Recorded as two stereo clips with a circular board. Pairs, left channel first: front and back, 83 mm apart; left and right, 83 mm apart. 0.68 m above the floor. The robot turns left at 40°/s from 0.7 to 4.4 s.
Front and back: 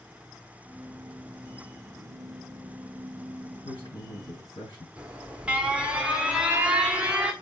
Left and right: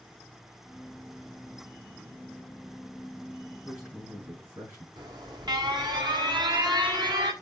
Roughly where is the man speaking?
Ahead.